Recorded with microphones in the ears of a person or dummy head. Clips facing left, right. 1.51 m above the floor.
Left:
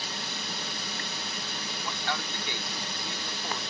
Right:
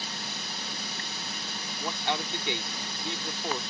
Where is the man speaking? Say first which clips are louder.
Right 4 dB; 20° right (ahead or behind).